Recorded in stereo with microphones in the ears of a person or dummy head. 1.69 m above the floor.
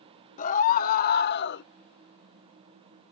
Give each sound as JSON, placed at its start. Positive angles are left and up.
{"t": 0.4, "sound": "a scream", "side_deg": 45}